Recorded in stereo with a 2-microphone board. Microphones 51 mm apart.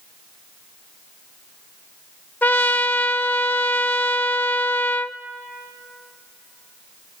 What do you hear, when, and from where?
2.4 s a trumpet: 35° left (ahead or behind), 0.6 m